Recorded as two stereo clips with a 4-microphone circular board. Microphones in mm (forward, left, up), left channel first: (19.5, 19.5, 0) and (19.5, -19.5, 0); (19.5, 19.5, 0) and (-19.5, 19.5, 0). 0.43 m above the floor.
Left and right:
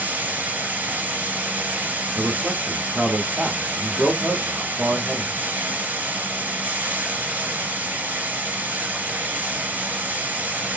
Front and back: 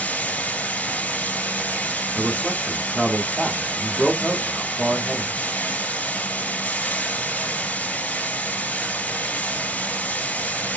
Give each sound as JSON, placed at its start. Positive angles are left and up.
{"t": 0.0, "sound": "running water", "azimuth_deg": -50, "distance_m": 1.7}
{"t": 2.1, "sound": "a man speaking", "azimuth_deg": -120, "distance_m": 0.8}